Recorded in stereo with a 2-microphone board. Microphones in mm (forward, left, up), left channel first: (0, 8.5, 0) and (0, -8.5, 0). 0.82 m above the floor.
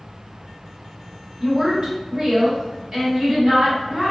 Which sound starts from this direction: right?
A woman speaking, at 1.4 s.